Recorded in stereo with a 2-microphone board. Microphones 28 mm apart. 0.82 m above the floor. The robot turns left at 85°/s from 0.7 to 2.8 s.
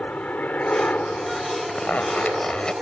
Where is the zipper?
125° left; by 2.7 s 35° left.